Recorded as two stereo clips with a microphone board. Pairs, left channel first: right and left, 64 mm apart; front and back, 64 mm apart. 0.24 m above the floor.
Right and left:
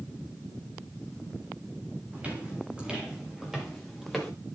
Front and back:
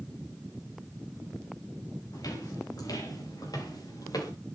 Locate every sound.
2.1 s footsteps: 20° left, 6.5 m; by 4.3 s straight ahead, 6.5 m